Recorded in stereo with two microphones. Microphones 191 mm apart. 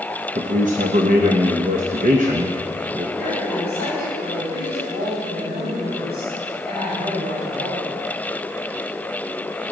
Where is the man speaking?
45° right (ahead or behind), 0.9 m.